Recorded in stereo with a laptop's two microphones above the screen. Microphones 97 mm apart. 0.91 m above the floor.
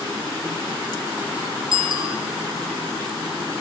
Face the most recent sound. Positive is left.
turn(degrees=-55)  # may be behind; listen again after turning